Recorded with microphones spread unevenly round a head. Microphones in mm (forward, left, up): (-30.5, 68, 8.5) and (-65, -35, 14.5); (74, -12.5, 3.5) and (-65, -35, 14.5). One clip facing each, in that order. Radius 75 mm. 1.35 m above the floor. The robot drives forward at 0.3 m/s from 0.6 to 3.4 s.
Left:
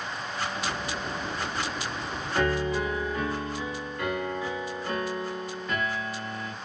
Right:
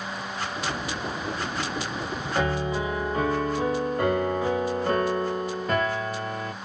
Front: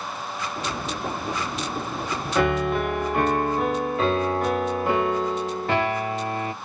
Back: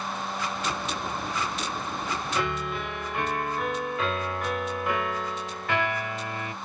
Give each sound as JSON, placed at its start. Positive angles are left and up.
{"t": 2.4, "sound": "a piano", "azimuth_deg": -25, "distance_m": 0.7}